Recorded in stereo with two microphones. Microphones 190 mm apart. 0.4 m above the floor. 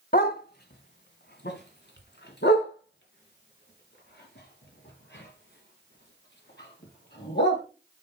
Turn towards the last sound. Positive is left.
turn(degrees=85)